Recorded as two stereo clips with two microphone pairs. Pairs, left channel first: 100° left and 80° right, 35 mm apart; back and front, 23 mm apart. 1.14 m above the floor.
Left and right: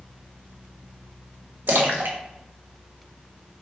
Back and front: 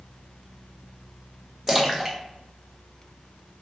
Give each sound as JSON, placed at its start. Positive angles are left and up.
{"t": 1.7, "sound": "a splash", "azimuth_deg": -75, "distance_m": 0.6}